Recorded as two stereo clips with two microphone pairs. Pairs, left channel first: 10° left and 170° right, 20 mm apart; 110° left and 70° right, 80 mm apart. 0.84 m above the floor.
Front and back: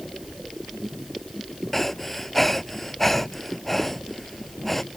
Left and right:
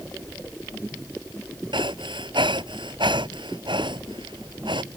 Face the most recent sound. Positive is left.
turn(degrees=-70)